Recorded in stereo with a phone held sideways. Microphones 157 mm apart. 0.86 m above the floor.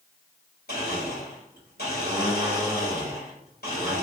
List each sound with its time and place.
0.7 s a blender: 85° left, 1.7 m